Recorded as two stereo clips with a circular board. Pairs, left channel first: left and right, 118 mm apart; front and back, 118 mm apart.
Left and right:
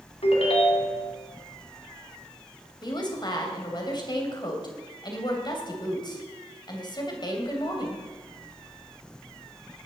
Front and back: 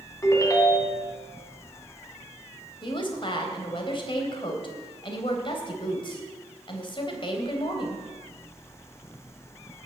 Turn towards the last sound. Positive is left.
turn(degrees=40)